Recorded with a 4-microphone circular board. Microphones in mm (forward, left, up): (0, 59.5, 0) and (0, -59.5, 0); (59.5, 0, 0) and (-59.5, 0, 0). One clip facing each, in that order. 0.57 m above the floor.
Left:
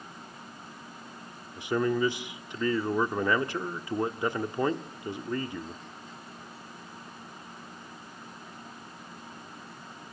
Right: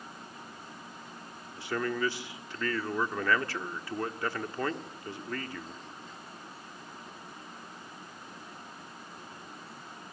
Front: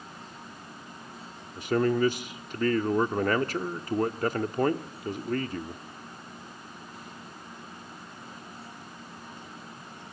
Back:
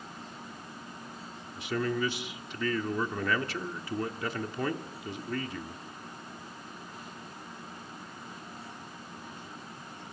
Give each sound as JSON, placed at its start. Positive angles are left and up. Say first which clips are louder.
{"t": 1.6, "sound": "a man speaking", "louder": "left 5 dB, front 6 dB", "azimuth_deg": 25, "distance_m": 1.1}